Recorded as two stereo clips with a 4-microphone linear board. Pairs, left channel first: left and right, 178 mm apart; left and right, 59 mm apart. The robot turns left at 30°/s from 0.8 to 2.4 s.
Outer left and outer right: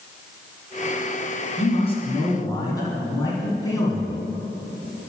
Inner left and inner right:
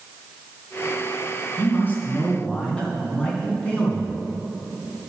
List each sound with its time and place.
1.6 s a man speaking: 40° left (ahead or behind), 3 m; by 4.1 s 20° left (ahead or behind), 3 m